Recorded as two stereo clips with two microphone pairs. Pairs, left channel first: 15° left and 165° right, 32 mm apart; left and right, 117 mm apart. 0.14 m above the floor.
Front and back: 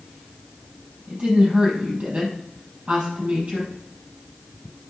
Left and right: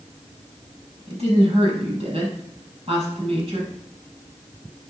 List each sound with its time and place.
1.1 s a woman speaking: 110° right, 4.5 m